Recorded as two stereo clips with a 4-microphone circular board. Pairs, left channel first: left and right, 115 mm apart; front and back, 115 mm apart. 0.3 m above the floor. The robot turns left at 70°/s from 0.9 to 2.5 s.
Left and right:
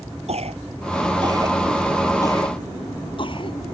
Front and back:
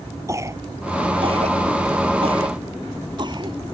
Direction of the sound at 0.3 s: 115° right.